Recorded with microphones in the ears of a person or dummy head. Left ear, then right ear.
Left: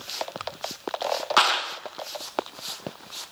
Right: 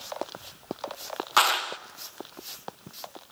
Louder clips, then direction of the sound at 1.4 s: Left 1 dB; centre (ahead or behind).